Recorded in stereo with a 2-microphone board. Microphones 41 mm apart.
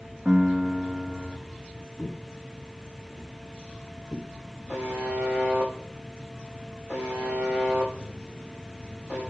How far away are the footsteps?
About 2.5 m.